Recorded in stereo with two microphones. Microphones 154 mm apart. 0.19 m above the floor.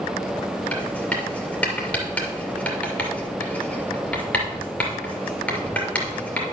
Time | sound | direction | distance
0.7 | writing | 10° left (ahead or behind) | 2.5 m